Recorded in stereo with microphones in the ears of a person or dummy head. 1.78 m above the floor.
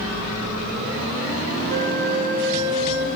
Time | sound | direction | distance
1.7 | a flute | 35° right (ahead or behind) | 1.9 m